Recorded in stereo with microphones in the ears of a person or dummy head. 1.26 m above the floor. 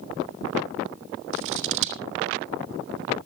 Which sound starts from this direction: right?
Scissors, at 1.3 s.